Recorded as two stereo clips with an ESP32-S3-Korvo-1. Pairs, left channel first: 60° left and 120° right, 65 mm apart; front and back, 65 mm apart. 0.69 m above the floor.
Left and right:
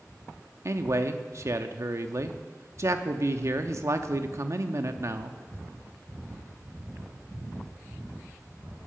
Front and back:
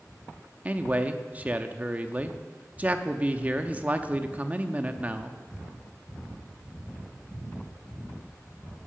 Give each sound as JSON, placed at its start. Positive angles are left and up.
{"t": 0.7, "sound": "a man speaking", "azimuth_deg": -120, "distance_m": 0.8}